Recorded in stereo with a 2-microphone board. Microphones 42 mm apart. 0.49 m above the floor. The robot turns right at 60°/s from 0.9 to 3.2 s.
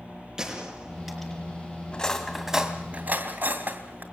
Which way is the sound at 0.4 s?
15° right (ahead or behind).